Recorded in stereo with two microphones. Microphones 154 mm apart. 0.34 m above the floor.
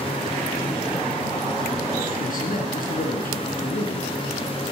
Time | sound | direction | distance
2.2 | a man speaking | 65° left (ahead or behind) | 4 m